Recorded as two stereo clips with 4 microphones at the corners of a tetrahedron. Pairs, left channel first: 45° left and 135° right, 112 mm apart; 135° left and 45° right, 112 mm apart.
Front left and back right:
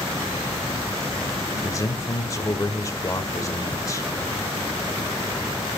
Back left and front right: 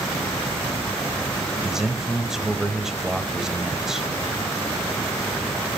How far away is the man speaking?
About 1.3 m.